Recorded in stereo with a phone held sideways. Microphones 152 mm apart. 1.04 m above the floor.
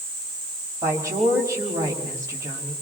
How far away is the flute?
I don't hear a flute.